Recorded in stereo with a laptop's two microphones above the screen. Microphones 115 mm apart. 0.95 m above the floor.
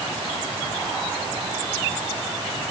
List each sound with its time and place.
Only background noise.